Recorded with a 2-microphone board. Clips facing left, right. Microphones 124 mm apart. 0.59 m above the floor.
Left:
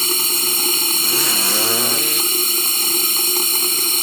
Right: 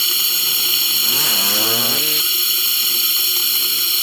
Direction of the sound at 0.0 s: 45° left (ahead or behind).